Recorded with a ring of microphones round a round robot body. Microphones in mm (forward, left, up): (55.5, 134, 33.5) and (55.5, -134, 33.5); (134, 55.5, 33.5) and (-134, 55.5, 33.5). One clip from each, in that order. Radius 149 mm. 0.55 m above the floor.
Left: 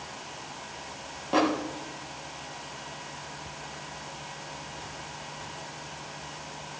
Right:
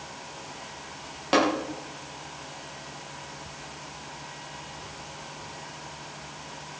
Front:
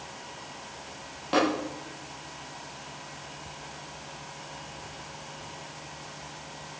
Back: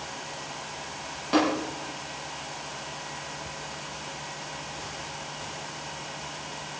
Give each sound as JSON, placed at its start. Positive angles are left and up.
{"t": 1.3, "sound": "tapping", "azimuth_deg": -90, "distance_m": 9.0}